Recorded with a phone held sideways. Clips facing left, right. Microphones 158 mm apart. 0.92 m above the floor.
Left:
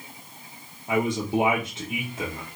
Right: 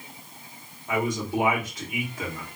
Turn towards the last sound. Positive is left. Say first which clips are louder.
# left 2 dB
turn(degrees=25)  # may be behind; listen again after turning